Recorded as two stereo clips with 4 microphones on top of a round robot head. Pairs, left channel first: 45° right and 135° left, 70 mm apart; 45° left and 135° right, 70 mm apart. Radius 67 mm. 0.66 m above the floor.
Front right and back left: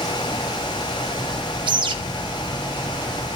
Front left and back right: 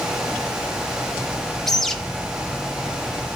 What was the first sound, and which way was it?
A bird, 130° left.